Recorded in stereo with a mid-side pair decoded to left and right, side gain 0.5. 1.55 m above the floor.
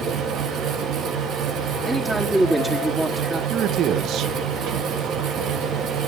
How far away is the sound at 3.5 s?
About 1.2 m.